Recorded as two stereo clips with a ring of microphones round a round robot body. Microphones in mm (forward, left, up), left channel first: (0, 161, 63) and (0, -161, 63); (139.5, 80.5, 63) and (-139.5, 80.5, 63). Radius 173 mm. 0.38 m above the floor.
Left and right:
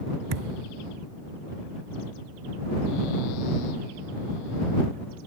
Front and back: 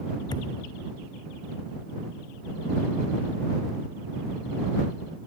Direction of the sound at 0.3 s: 80° right.